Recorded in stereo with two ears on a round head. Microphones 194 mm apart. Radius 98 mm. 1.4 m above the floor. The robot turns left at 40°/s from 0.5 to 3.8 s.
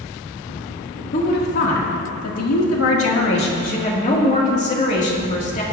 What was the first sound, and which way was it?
A woman speaking, 140° left.